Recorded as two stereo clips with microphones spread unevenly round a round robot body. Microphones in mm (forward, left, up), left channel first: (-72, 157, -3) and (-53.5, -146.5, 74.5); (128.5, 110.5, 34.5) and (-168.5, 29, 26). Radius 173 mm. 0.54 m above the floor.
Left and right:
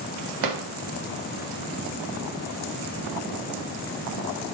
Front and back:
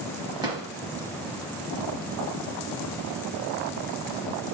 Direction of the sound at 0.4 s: 85° right.